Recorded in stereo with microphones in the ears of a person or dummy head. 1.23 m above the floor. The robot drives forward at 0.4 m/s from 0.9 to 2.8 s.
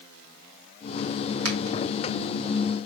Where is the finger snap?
80° right, 1.2 m.